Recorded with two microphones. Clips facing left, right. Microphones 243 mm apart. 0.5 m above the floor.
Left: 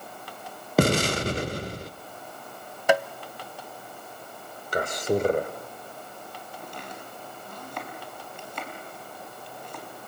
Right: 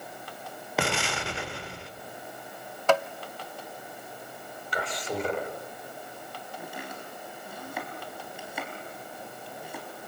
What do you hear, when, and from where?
0.8 s an explosion: 45° left (ahead or behind), 1.0 m
2.9 s tapping: 10° left (ahead or behind), 0.6 m
4.7 s a man speaking: 50° left (ahead or behind), 2 m
6.6 s chopping: 10° right (ahead or behind), 4 m